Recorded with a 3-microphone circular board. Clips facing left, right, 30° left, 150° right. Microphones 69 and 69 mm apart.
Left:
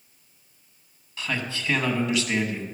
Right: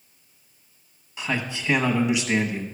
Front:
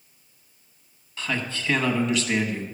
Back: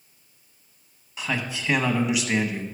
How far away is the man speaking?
About 1.0 m.